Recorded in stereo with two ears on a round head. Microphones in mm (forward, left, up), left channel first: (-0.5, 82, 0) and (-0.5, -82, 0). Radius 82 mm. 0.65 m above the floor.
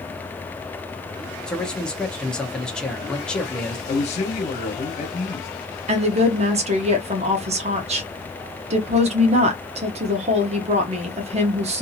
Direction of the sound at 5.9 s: 40° right (ahead or behind).